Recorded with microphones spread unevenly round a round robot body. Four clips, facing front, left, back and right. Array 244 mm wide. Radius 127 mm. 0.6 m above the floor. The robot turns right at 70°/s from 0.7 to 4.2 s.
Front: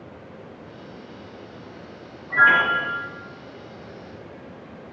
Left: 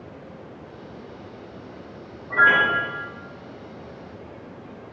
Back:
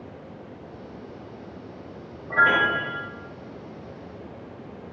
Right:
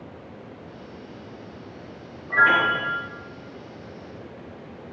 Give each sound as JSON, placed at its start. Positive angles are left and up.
{"t": 2.3, "sound": "a piano", "azimuth_deg": -175, "distance_m": 1.1}